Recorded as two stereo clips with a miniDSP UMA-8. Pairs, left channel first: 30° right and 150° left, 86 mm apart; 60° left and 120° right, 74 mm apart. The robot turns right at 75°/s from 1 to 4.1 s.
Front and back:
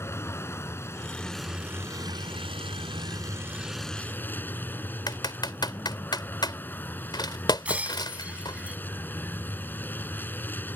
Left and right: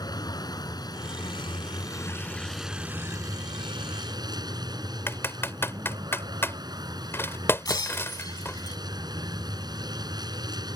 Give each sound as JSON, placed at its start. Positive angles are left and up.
{"t": 0.0, "sound": "a vehicle", "azimuth_deg": 30}
{"t": 5.1, "sound": "typing on a keyboard", "azimuth_deg": 5}
{"t": 7.7, "sound": "breaking glass", "azimuth_deg": 80}